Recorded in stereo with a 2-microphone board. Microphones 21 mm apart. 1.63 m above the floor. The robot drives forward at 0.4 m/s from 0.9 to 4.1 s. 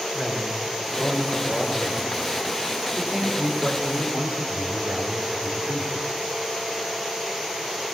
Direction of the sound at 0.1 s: 40° right (ahead or behind).